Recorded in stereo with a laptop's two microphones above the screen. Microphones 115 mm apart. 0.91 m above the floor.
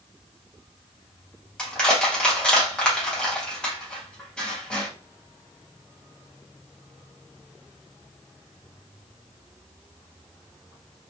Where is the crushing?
10° left (ahead or behind), 0.9 m.